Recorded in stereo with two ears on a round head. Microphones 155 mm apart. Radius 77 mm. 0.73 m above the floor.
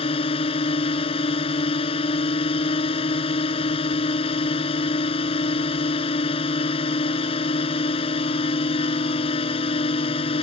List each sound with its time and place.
0.0 s a drone: 30° left (ahead or behind)